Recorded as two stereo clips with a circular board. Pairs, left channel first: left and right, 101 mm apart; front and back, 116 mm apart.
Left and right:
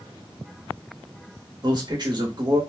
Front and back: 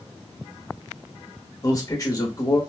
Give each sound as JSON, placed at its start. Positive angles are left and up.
{"t": 1.6, "sound": "a man speaking", "azimuth_deg": -55, "distance_m": 1.5}